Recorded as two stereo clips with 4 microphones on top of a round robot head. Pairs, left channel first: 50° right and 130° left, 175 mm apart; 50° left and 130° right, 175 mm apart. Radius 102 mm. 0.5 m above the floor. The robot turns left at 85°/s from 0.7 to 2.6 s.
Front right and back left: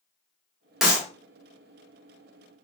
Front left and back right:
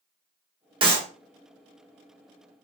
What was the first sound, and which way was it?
A clap, 140° right.